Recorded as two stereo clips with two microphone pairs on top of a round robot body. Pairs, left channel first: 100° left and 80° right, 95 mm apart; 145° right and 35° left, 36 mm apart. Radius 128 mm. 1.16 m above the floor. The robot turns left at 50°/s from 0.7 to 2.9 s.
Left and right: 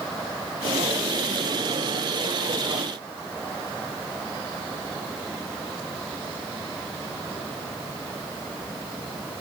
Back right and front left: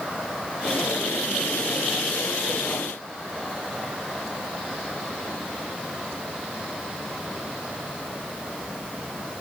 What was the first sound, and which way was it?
Only background noise.